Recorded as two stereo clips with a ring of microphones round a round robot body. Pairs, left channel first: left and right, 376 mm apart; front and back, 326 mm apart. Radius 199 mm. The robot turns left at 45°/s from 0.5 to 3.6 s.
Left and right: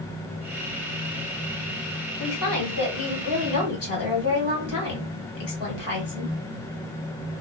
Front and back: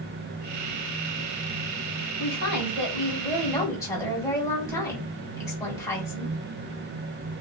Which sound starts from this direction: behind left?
A woman speaking, at 2.2 s.